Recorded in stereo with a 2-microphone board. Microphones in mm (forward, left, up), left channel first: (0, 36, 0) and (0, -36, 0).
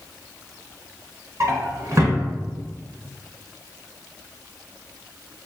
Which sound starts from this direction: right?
A drawer, at 1.4 s.